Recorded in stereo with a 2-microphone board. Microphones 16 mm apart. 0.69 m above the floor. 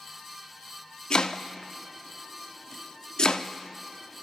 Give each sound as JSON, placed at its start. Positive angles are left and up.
{"t": 1.1, "sound": "chopping", "side_deg": 50, "distance_m": 0.8}